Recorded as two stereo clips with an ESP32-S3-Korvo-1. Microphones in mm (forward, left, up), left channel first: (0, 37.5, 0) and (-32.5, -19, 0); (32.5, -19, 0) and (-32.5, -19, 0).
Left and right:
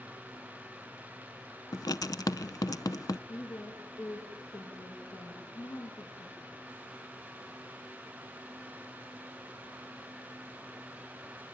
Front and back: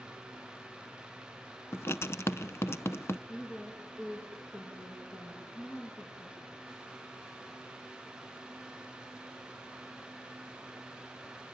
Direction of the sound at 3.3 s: 55° left.